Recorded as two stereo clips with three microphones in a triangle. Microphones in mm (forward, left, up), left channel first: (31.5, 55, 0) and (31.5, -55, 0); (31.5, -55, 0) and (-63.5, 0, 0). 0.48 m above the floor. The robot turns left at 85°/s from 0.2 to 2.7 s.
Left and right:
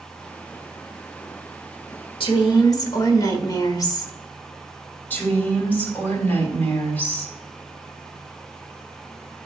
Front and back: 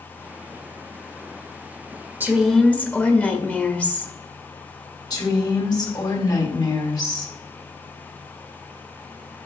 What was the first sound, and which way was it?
A woman speaking, 85° left.